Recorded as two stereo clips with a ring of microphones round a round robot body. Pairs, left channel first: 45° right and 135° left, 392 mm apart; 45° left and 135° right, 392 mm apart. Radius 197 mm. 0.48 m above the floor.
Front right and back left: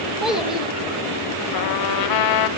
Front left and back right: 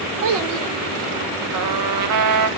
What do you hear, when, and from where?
0.2 s a child speaking: 135° right, 1.5 m
1.5 s a trumpet: 85° right, 0.7 m